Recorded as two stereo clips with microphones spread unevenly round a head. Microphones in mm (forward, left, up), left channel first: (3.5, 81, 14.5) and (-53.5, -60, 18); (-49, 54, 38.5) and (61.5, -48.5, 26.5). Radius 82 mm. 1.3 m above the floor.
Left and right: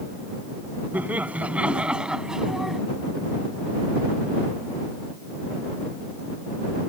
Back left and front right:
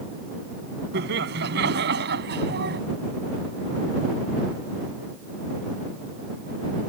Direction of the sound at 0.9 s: 30° right.